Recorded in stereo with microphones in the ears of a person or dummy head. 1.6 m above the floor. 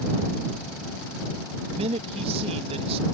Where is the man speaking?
35° right (ahead or behind).